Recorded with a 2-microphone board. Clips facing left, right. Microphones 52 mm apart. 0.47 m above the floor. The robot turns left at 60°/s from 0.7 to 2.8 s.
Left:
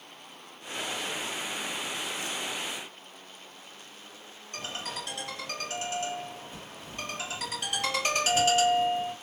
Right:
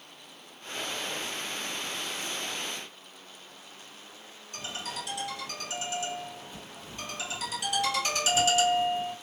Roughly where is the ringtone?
Left.